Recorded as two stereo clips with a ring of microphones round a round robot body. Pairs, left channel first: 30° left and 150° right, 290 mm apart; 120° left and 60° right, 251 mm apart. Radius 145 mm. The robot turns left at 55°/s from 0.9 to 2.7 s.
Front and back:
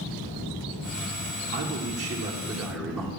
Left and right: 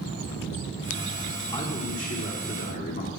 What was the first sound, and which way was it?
A man speaking, 175° right.